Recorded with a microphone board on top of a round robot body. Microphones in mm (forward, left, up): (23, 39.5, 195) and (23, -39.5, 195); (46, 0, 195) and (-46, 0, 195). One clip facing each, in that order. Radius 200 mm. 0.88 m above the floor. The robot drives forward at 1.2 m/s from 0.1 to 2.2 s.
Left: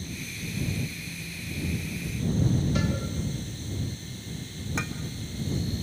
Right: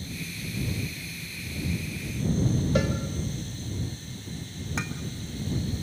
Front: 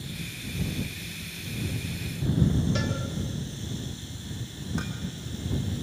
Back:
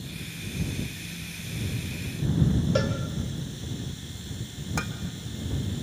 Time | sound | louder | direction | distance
2.8 | a cowbell | right 3 dB, back 4 dB | 135° right | 1.7 m
4.8 | dishes clattering | even, back 2 dB | 175° right | 1.2 m